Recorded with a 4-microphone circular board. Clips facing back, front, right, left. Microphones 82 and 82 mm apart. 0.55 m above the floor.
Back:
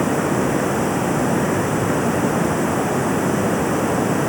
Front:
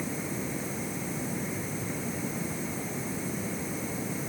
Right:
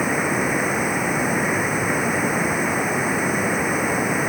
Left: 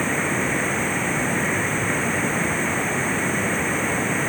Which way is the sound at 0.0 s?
165° right.